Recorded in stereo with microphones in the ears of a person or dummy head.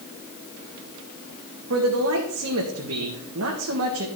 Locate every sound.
1.7 s a man speaking: 85° right, 1.9 m